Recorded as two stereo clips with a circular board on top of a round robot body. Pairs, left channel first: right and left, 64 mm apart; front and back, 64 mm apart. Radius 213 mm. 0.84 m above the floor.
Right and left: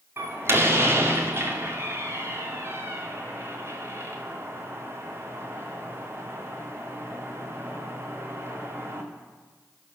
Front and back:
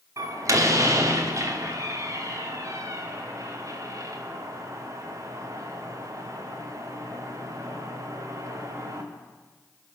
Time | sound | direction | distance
0.2 | a door slam | 145° left | 2 m